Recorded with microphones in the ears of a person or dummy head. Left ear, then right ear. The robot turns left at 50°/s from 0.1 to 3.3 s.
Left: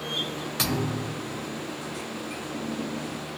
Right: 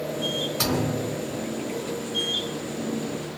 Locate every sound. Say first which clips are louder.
0.6 s a thud: right 3 dB; 20° left (ahead or behind), 1.2 m; by 1.5 s centre (ahead or behind), 1.2 m